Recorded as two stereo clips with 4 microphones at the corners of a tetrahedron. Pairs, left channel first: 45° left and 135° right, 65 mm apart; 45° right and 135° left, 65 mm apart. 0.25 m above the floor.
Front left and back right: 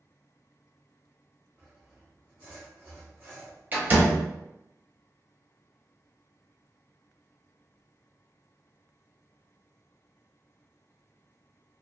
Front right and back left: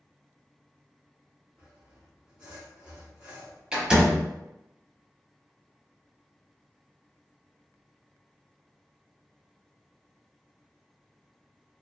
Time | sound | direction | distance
1.6 | sawing | 160° right | 1.4 m
3.7 | a door slam | 160° right | 0.8 m